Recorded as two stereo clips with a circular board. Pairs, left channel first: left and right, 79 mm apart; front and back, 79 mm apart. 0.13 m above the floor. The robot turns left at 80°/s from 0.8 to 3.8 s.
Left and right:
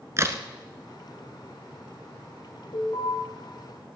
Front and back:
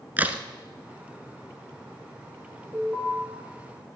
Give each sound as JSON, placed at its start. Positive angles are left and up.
{"t": 0.2, "sound": "a crack", "azimuth_deg": -120, "distance_m": 0.9}
{"t": 2.7, "sound": "an alarm", "azimuth_deg": 130, "distance_m": 7.5}